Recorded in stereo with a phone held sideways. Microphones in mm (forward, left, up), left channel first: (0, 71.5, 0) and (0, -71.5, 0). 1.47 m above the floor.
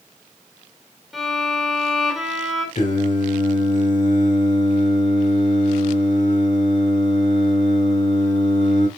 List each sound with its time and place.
1.1 s a violin: centre (ahead or behind), 4 m
2.8 s singing: 60° left (ahead or behind), 3 m